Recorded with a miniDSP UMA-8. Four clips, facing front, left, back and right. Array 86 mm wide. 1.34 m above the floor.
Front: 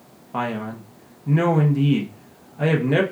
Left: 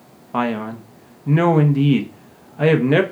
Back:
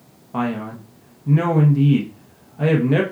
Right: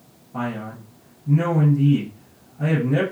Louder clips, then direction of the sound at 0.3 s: Left 7 dB, back 2 dB; 85° left.